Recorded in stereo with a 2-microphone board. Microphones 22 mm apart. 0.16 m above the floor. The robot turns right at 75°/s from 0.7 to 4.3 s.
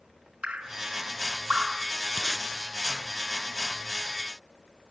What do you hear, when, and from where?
0.4 s dripping: 60° right (ahead or behind), 1.5 m; by 1.9 s 30° right (ahead or behind), 1.5 m
2.2 s tape being pulled: 10° right (ahead or behind), 1.0 m; by 2.5 s 30° right (ahead or behind), 1.0 m